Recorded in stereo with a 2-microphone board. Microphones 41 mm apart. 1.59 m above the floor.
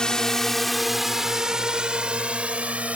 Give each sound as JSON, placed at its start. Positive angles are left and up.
{"t": 0.0, "sound": "a drone", "side_deg": 20}